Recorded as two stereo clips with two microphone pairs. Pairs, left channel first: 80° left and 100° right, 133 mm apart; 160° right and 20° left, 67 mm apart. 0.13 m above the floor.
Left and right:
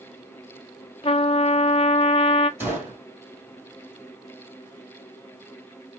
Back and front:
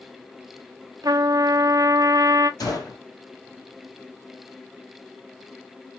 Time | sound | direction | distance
1.0 | a trumpet | 35° left | 0.6 m
2.6 | a gunshot | 170° right | 1.9 m